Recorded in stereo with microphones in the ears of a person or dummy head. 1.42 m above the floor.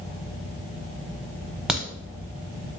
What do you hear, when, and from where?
1.7 s a crack: 5° right (ahead or behind), 0.6 m